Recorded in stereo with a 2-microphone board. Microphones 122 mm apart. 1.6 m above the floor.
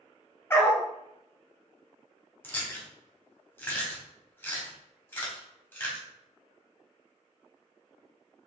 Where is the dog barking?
20° left (ahead or behind), 1.0 m.